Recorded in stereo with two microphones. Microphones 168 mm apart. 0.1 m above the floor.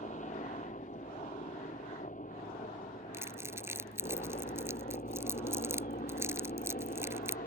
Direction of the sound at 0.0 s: 45° left (ahead or behind).